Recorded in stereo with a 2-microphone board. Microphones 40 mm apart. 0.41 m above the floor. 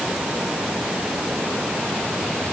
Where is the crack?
No crack in this recording.